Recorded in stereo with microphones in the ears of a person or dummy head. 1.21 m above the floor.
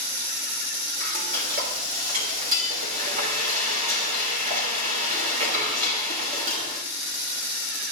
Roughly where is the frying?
Right.